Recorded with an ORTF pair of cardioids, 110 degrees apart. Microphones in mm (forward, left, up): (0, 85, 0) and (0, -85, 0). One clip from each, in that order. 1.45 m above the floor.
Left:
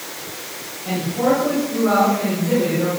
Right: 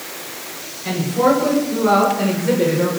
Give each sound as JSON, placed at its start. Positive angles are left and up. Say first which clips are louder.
{"t": 0.8, "sound": "a man speaking", "louder": "right 3 dB", "azimuth_deg": -45, "distance_m": 7.5}